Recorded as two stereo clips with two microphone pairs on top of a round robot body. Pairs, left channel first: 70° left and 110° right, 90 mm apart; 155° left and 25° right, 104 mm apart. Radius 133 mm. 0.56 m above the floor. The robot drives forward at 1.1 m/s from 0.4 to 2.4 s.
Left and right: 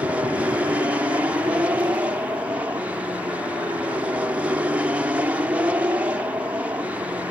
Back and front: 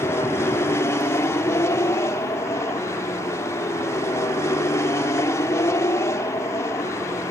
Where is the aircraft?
165° right.